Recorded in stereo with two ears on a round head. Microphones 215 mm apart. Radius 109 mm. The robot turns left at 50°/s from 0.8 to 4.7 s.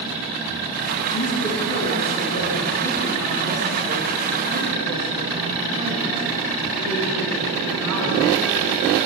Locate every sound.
1.1 s a woman speaking: 105° left, 9 m; by 8.2 s 75° right, 9 m